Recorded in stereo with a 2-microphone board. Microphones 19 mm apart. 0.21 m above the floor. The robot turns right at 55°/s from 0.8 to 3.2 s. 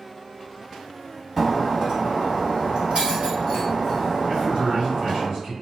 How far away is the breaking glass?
About 1.7 m.